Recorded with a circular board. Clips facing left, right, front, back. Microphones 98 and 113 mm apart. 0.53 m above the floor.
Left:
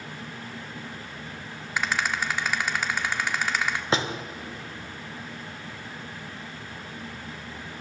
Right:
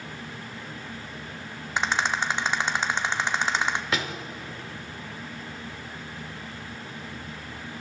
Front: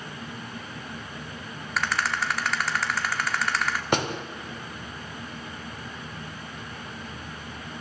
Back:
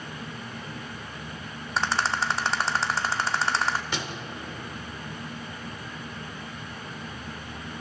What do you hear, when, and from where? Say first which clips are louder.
1.8 s a rattle: right 2 dB, back 1 dB; 140° right, 0.8 m
3.9 s a door slam: left 3 dB, front 8 dB; 30° left, 1.0 m